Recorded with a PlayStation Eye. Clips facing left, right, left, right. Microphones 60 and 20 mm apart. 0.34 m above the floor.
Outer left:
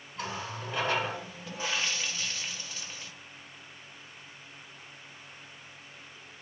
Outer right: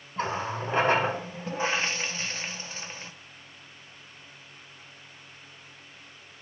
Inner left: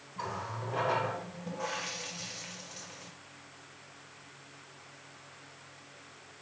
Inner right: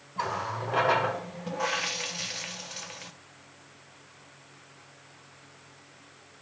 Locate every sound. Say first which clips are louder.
0.2 s a running tap: outer right 7 dB, inner right 7 dB; 35° right (ahead or behind), 0.6 m